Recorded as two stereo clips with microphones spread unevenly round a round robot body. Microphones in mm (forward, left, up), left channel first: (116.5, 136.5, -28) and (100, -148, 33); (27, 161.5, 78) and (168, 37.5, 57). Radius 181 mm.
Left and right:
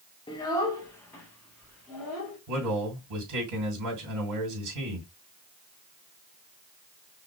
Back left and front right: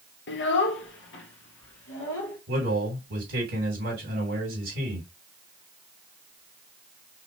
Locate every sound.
0.3 s a child speaking: 155° left, 0.7 m; by 2.4 s 175° left, 2.0 m
2.5 s a man speaking: 70° right, 3.5 m